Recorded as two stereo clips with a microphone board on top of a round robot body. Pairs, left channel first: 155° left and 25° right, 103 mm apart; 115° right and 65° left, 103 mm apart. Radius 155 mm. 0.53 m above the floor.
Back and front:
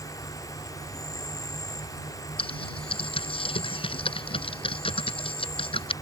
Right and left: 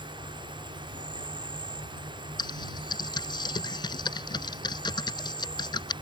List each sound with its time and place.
0.0 s an insect: 105° left
2.4 s typing on a keyboard: 165° right